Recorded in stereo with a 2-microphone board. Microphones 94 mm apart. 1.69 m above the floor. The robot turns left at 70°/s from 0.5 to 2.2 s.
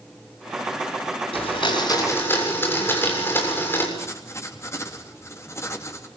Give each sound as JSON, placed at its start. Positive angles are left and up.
{"t": 1.3, "sound": "a blender", "azimuth_deg": 85, "distance_m": 7.0}
{"t": 4.0, "sound": "writing", "side_deg": 30, "distance_m": 3.5}